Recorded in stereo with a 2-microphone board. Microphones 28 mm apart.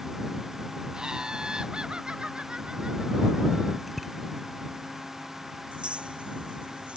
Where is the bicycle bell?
5° right (ahead or behind).